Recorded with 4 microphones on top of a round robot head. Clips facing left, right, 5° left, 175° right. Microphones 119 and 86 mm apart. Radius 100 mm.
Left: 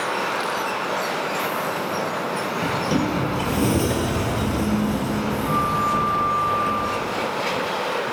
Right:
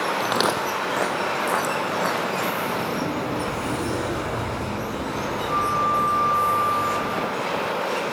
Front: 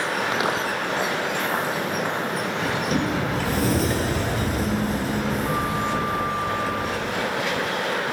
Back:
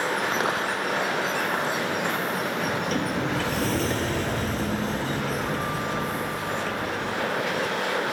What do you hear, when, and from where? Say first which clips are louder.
0.2 s footsteps: right 2 dB, front 2 dB; 80° right, 1.5 m
2.6 s a sliding door: left 3 dB, front 3 dB; 85° left, 4 m